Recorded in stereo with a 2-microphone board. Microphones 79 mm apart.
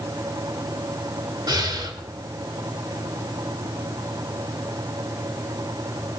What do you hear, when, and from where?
1.5 s breathing: 65° right (ahead or behind), 3 m